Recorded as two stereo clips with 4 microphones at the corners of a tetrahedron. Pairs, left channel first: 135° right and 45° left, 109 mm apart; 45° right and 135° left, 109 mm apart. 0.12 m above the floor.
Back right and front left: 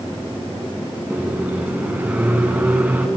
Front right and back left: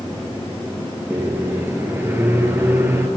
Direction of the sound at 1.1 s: 100° left.